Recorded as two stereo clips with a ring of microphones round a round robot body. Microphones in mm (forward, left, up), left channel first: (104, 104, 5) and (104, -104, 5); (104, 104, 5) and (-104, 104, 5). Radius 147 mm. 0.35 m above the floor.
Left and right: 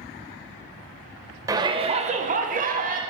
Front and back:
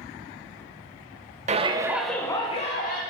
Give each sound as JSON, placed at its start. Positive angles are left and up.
{"t": 1.5, "sound": "a shout", "azimuth_deg": -155, "distance_m": 1.2}